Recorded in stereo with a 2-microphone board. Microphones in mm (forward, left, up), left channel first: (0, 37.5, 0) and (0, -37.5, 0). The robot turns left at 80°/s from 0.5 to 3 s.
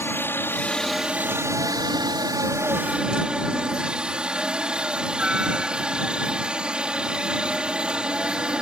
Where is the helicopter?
35° left; by 8.6 s 165° right.